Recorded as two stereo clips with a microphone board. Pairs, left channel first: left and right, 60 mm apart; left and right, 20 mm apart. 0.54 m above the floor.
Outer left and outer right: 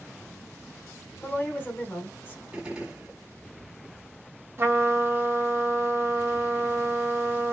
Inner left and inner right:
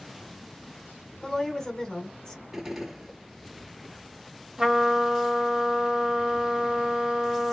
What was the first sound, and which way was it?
A woman speaking, 35° left (ahead or behind).